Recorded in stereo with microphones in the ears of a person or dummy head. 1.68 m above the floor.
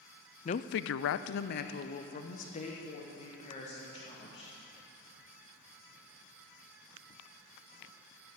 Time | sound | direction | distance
0.5 | a woman speaking | 35° left (ahead or behind) | 0.5 m